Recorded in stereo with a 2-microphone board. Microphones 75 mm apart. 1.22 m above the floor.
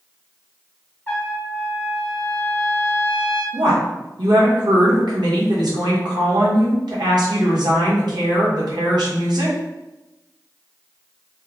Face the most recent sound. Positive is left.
turn(degrees=-75)  # may be behind; listen again after turning